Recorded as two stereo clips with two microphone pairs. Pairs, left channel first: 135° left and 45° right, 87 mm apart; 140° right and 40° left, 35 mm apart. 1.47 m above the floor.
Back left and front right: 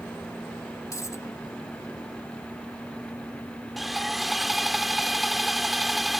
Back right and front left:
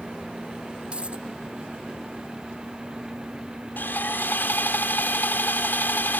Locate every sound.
0.9 s a dropped coin: 85° left
3.8 s sawing: 130° right